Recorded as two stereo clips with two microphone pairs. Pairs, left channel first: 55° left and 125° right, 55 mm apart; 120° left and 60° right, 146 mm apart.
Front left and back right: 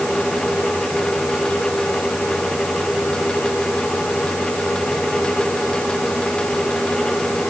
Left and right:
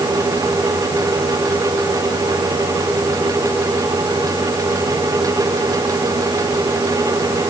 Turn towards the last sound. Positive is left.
No sound to turn to.